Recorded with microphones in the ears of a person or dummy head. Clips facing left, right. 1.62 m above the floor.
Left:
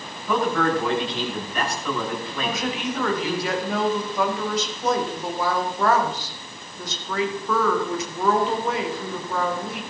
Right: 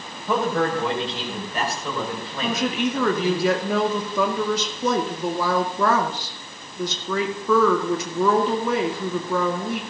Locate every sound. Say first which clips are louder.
0.3 s a man speaking: even; 25° right (ahead or behind), 6 m
2.4 s a woman speaking: right 5 dB; 90° right, 1.9 m